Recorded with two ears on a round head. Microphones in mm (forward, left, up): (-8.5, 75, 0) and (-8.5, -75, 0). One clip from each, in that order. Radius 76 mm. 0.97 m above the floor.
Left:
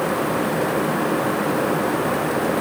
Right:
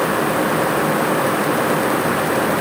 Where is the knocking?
No knocking in this recording.